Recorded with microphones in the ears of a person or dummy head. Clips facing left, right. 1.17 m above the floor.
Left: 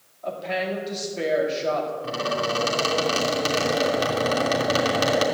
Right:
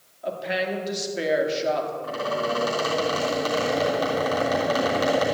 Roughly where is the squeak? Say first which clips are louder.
Even; left.